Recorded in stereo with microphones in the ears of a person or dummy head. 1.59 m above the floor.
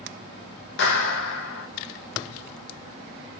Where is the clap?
65° left (ahead or behind), 1.4 m.